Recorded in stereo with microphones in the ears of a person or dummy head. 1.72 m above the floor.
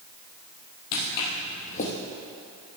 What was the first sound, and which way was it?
Footsteps, 50° left (ahead or behind).